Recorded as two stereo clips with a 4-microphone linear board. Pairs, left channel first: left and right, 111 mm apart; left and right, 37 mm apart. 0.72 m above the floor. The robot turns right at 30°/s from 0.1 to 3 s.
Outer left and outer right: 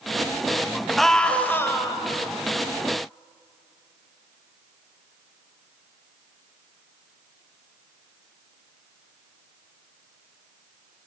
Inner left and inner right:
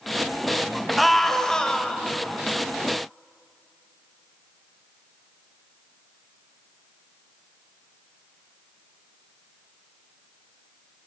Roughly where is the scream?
Ahead.